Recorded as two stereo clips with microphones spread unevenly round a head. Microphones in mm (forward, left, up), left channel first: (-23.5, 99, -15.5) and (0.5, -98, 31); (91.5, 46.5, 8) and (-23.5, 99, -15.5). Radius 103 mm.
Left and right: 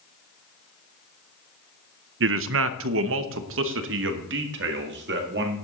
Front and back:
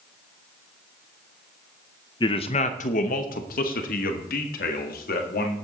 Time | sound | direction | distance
2.2 | a man speaking | 90° right | 0.6 m